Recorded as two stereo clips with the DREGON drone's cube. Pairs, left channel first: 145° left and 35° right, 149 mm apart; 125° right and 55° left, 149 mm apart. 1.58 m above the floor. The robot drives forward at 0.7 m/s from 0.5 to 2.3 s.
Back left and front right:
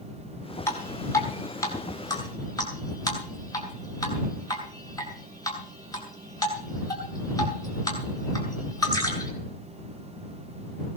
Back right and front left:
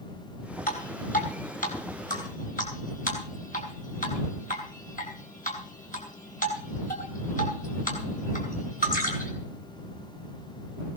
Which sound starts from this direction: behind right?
Dripping, at 0.7 s.